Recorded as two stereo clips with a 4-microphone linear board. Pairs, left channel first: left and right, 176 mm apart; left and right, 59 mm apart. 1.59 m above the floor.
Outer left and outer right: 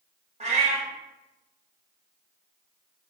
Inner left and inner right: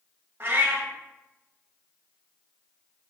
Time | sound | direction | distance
0.4 | a cat meowing | 40° right (ahead or behind) | 0.9 m